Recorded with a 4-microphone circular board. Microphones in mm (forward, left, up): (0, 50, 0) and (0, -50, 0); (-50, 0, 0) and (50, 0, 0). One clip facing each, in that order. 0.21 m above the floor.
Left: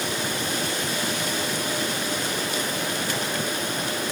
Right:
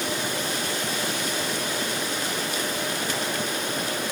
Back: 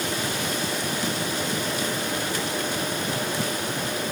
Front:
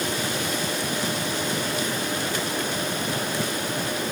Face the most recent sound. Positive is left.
No sound to turn to.